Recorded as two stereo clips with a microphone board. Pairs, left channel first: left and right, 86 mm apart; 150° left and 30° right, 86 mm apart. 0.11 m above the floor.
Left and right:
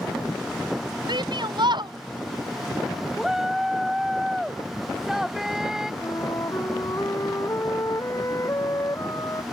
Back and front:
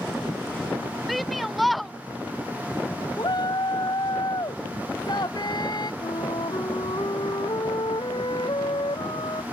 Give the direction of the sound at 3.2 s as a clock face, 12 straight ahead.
6 o'clock.